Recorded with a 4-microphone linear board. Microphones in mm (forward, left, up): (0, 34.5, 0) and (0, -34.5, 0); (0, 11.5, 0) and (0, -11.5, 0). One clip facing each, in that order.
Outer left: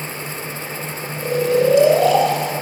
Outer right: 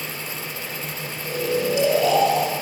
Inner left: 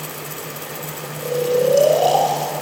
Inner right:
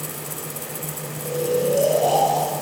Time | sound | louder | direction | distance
1.2 | snoring | outer left 8 dB, inner left 4 dB | 60° left (ahead or behind) | 4 m